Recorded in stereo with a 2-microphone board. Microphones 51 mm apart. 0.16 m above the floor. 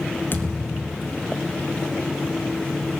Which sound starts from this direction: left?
A thud, at 0.3 s.